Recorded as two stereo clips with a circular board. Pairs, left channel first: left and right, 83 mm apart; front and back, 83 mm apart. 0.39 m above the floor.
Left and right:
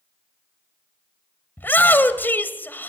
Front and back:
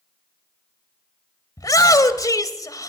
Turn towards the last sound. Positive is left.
turn(degrees=30)